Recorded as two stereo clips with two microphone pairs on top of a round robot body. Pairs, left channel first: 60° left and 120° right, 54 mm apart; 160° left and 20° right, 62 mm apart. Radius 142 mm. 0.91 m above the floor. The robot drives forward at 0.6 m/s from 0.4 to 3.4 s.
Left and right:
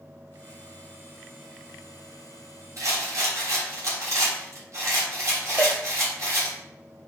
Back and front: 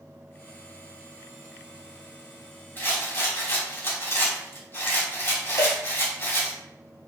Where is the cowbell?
Straight behind, 1.4 m.